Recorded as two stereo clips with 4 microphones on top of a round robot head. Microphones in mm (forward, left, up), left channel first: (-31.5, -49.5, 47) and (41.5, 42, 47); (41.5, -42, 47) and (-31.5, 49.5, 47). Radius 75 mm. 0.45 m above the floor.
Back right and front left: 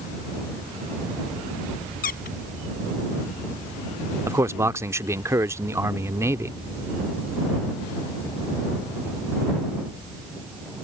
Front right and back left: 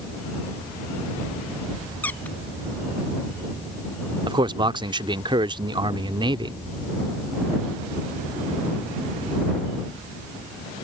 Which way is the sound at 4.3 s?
105° left.